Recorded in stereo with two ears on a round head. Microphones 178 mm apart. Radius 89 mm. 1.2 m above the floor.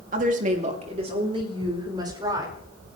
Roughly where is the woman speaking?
Right.